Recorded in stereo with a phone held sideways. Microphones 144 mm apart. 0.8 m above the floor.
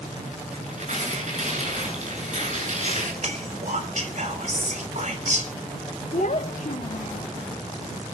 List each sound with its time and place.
0.5 s tearing paper: 65° right (ahead or behind), 9 m
3.2 s whispering: 60° right (ahead or behind), 4 m
6.1 s a child speaking: 70° left (ahead or behind), 0.9 m